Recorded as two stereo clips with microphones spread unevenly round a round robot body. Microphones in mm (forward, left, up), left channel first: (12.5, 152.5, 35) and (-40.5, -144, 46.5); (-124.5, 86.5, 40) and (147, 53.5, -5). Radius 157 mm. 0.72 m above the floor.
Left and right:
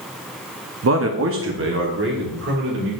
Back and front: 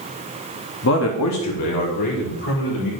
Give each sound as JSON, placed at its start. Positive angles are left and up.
{"t": 0.8, "sound": "a man speaking", "azimuth_deg": -135, "distance_m": 0.7}